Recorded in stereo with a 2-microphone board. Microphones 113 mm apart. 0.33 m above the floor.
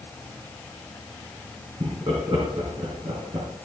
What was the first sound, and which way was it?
Laughter, 45° right (ahead or behind).